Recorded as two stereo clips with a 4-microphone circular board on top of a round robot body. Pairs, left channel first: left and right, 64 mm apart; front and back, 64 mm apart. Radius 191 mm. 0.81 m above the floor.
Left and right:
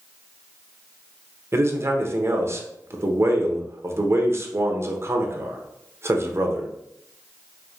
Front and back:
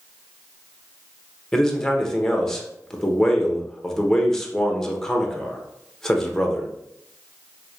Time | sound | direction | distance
1.5 | a man speaking | 80° right | 1.1 m